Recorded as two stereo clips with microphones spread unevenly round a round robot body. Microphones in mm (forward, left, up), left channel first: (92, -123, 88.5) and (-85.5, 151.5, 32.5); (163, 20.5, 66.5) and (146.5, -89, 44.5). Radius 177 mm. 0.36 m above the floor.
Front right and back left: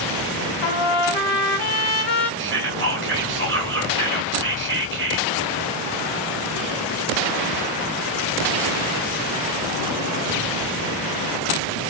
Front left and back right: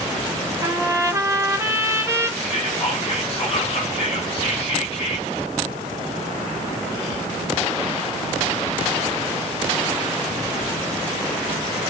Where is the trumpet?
45° right, 1.2 m.